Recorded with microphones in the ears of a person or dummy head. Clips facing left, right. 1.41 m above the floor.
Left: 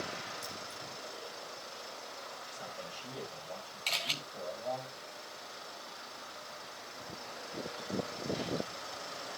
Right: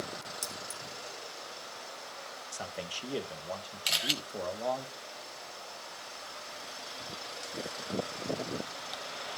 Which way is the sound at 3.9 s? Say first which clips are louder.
Right 5 dB; 10° right (ahead or behind).